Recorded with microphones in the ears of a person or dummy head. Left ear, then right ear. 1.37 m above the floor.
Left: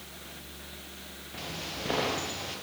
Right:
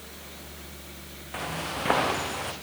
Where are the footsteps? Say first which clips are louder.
Right 6 dB; 50° right (ahead or behind), 5 m.